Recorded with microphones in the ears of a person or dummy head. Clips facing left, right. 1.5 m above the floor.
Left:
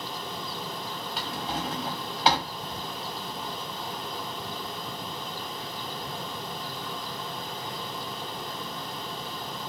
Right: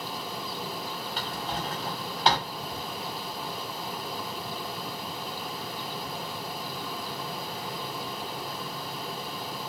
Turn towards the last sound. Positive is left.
turn(degrees=5)  # may be behind; listen again after turning